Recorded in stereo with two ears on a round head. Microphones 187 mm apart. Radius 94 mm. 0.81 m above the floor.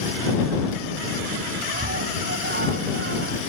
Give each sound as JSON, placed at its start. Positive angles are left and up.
{"t": 1.7, "sound": "a scream", "side_deg": -45}